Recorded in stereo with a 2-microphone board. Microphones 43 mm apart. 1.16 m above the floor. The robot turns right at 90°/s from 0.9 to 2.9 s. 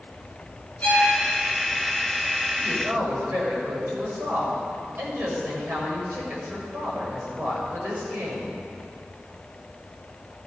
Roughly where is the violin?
Left.